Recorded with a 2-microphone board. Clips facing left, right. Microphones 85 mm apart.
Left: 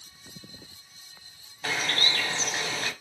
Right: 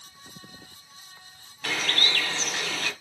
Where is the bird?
25° left (ahead or behind), 3.5 m.